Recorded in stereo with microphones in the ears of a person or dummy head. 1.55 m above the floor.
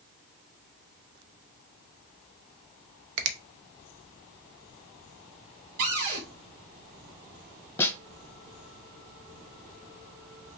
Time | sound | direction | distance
3.2 | a finger snap | 70° right (ahead or behind) | 0.6 m
5.8 | a cupboard door | 50° right (ahead or behind) | 2.5 m
7.8 | a snare drum | 15° left (ahead or behind) | 0.7 m